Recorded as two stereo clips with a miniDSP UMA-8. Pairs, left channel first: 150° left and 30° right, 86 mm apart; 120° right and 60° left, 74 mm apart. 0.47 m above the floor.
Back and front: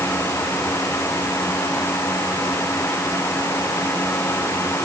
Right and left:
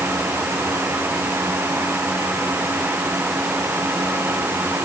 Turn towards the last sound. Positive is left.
No sound to turn to.